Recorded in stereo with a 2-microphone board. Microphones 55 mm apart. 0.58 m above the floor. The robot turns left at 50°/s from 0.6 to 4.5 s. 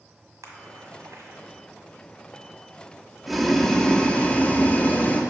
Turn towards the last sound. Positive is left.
turn(degrees=120)